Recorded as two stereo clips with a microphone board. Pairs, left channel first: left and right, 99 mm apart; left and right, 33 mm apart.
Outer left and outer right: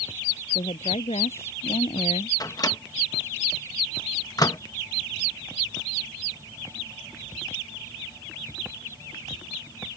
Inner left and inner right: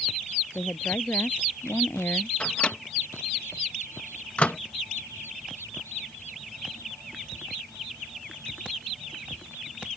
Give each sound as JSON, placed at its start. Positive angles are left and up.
{"t": 0.6, "sound": "a woman speaking", "side_deg": 85}
{"t": 2.4, "sound": "a microwave", "side_deg": 35}